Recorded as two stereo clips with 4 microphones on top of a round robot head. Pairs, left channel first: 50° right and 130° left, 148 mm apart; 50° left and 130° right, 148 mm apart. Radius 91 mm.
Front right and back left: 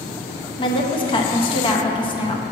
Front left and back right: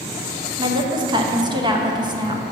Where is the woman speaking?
85° right, 0.9 m.